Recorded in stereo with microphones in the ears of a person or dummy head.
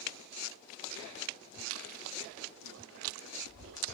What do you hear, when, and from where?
1.7 s chewing: 80° right